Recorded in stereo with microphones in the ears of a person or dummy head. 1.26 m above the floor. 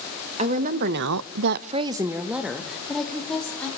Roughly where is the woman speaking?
Right.